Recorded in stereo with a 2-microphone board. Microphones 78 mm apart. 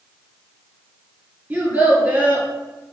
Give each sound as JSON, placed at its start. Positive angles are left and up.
{"t": 1.5, "sound": "a child speaking", "side_deg": -20, "distance_m": 1.6}